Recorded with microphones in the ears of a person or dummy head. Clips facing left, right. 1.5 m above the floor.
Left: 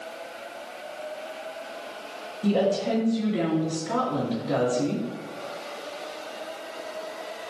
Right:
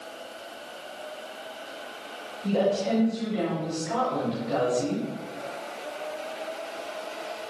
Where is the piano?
No piano in this recording.